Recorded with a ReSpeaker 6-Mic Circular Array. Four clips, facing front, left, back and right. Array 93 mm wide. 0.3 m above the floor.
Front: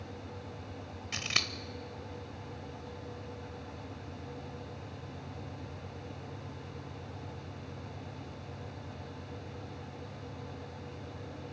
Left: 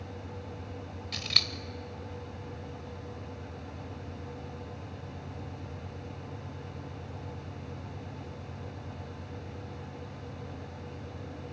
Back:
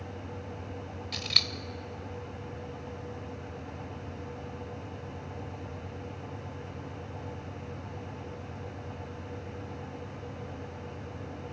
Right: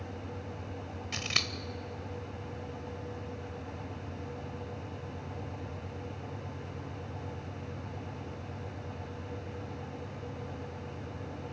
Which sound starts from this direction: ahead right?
Scissors, at 1.1 s.